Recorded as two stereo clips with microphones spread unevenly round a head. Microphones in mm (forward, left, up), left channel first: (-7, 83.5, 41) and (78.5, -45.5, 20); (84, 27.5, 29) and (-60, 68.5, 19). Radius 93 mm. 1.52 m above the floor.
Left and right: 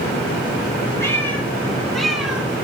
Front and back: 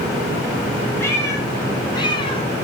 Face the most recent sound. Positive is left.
turn(degrees=30)